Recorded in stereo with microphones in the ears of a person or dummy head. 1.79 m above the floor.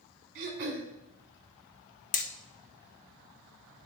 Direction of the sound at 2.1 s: 40° left (ahead or behind).